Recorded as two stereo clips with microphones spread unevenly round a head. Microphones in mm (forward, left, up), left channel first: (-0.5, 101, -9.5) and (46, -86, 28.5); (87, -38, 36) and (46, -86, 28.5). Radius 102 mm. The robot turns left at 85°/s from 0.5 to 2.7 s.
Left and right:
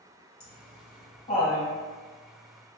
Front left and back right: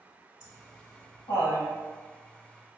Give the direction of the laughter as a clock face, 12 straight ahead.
8 o'clock.